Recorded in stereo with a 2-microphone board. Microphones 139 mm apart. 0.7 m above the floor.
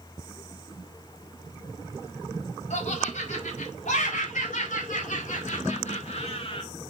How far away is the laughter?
About 3.5 m.